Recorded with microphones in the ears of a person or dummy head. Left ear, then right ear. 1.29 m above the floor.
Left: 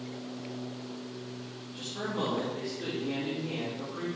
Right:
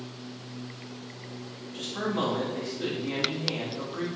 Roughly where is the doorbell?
I don't hear a doorbell.